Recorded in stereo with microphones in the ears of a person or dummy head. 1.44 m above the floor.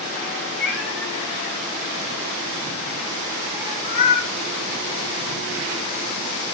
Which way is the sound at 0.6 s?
70° left (ahead or behind).